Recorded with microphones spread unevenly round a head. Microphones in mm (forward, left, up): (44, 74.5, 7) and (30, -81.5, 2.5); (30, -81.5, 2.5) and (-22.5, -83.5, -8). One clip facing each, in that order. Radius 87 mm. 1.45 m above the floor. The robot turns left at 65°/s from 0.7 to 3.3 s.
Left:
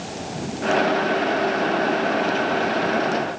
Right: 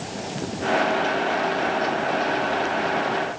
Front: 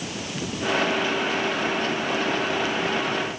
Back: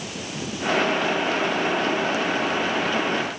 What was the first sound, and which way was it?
Only background noise.